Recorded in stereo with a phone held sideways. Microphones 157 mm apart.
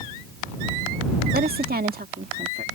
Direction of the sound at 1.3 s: 80° right.